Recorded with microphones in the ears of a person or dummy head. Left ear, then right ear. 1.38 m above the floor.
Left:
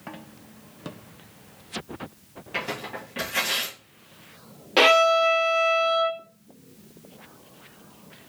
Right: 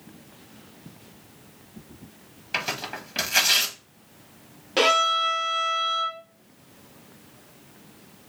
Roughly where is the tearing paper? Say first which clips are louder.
Right 2 dB; right.